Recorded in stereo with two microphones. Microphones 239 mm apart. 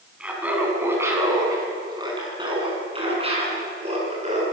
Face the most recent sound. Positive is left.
turn(degrees=-30)  # may be behind; listen again after turning